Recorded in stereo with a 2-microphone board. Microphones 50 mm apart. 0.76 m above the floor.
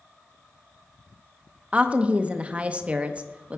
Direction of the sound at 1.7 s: 25° right (ahead or behind).